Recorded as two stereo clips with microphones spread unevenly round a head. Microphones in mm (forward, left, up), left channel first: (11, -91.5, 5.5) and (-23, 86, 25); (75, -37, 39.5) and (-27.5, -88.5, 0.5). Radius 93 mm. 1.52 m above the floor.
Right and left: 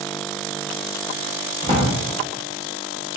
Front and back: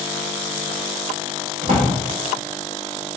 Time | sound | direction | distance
1.6 | a drawer | 145° left | 1.0 m